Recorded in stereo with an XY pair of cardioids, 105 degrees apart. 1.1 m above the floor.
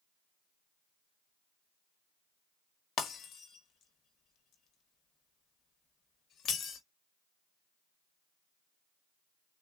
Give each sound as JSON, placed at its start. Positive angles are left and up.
{"t": 3.0, "sound": "breaking glass", "azimuth_deg": 60, "distance_m": 1.4}